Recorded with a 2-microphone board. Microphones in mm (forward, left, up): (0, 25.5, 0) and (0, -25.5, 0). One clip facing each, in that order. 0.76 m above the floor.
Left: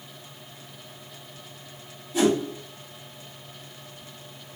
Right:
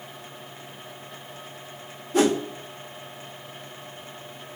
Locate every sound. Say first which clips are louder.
2.1 s a whoosh: right 1 dB; 50° right (ahead or behind), 1.1 m